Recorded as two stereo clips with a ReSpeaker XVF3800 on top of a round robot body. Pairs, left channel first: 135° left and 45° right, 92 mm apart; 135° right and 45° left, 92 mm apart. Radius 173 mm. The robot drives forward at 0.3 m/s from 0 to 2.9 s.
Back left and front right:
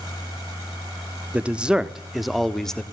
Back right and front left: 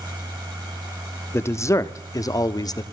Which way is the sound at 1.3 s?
105° right.